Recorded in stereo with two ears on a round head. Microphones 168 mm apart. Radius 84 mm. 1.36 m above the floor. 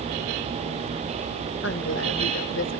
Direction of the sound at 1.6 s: 75° left (ahead or behind).